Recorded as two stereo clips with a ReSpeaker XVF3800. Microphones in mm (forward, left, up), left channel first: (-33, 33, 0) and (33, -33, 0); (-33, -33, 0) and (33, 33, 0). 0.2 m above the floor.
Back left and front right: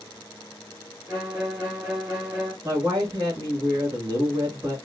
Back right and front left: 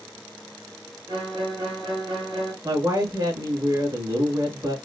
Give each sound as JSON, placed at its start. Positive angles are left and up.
{"t": 1.1, "sound": "a violin", "azimuth_deg": 25, "distance_m": 3.0}
{"t": 2.6, "sound": "a woman speaking", "azimuth_deg": 0, "distance_m": 2.5}